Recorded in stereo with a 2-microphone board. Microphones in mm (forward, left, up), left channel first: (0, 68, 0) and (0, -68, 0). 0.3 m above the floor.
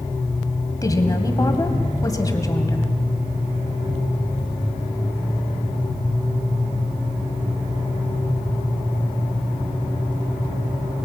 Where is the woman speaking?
25° left (ahead or behind), 1.8 m.